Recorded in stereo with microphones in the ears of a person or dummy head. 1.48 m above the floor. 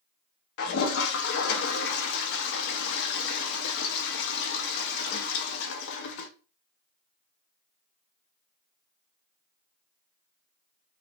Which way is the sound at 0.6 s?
70° left (ahead or behind).